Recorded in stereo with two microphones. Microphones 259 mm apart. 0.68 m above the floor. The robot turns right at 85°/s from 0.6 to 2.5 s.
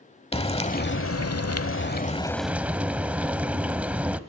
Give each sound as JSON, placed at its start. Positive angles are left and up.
{"t": 0.3, "sound": "frying", "azimuth_deg": 25, "distance_m": 0.9}